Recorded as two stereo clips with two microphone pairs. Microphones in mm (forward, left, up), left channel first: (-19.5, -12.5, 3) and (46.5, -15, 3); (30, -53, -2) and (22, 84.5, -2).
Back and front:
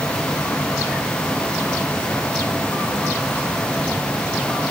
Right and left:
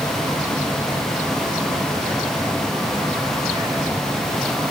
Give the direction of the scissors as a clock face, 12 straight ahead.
I don't hear scissors.